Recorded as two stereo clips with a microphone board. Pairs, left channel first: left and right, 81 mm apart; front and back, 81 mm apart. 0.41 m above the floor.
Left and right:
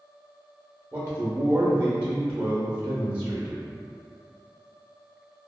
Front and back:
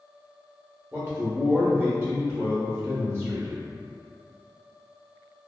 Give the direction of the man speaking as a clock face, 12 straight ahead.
4 o'clock.